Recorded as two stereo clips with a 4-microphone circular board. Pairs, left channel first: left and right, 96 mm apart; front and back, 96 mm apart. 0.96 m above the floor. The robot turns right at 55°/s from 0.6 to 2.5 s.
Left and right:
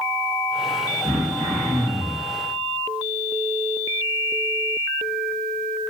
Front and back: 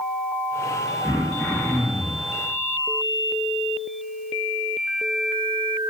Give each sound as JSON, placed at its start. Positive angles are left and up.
{"t": 1.0, "sound": "throat clearing", "azimuth_deg": -115, "distance_m": 0.6}